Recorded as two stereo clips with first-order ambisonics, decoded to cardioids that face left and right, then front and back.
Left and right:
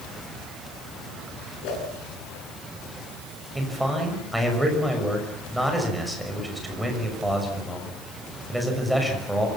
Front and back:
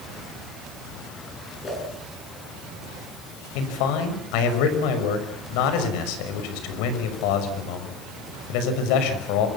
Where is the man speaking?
Straight ahead, 6 m.